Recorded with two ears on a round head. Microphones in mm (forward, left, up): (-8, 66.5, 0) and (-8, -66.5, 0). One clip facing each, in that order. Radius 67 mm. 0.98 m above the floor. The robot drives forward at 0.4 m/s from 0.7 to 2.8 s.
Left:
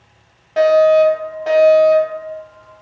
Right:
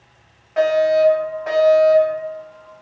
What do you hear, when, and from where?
0.6 s a fire alarm: 40° left (ahead or behind), 2.0 m; by 2.2 s 30° left (ahead or behind), 2.5 m